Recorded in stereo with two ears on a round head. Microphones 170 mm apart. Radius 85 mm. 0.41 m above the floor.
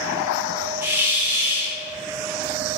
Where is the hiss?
10° right (ahead or behind), 0.6 m.